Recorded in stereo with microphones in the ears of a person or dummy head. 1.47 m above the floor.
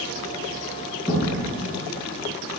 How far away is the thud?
About 3 m.